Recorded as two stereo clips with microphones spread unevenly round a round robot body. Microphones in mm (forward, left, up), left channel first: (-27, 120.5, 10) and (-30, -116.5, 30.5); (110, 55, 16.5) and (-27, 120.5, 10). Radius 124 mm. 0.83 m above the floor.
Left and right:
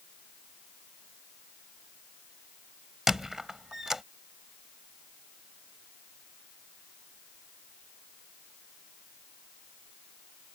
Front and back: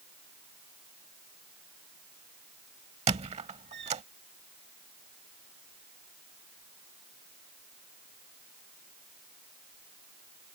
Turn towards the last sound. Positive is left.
turn(degrees=-170)